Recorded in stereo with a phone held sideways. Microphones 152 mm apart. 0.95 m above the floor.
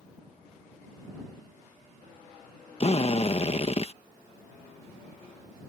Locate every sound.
2.8 s a drill: 45° left (ahead or behind)